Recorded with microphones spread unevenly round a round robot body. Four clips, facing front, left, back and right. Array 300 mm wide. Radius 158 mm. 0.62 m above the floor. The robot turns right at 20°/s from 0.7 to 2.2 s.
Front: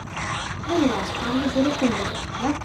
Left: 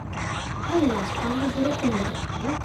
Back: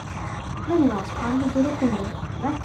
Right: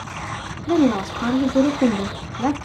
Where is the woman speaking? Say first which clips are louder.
Right 5 dB, back 1 dB; 110° right, 1.6 m; by 2.6 s 80° right, 1.6 m.